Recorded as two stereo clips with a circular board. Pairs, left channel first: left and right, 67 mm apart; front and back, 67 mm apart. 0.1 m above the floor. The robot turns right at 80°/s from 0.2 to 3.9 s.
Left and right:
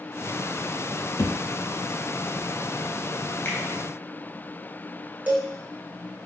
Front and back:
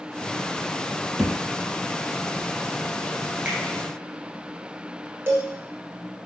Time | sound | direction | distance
1.2 | a thud | 95° left | 0.7 m
3.5 | a finger snap | 130° left | 1.2 m
5.3 | a cowbell | 145° right | 0.8 m